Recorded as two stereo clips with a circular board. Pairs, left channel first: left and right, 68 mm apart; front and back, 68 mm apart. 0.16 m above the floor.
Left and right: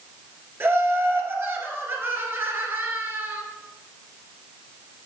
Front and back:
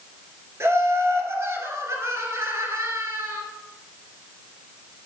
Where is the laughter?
135° right, 2 m.